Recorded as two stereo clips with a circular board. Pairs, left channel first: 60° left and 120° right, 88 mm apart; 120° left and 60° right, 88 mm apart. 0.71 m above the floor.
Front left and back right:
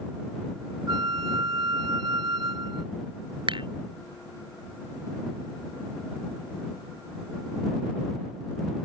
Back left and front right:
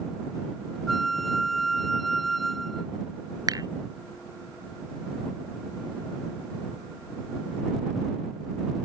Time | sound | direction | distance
0.9 | a flute | 150° right | ?
3.5 | dishes clattering | 100° right | ?